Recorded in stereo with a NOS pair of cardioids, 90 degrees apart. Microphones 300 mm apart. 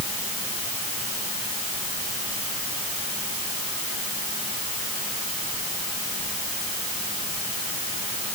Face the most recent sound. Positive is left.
No sound to turn to.